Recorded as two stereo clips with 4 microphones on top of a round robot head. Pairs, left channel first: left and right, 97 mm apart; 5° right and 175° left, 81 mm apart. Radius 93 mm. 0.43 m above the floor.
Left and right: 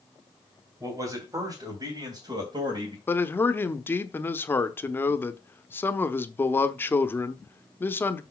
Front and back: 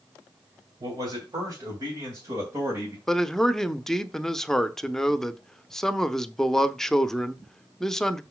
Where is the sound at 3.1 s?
70° left, 0.8 m.